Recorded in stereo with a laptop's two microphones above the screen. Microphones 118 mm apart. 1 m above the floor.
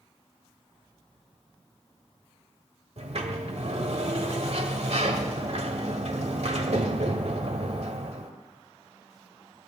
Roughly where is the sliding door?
Right.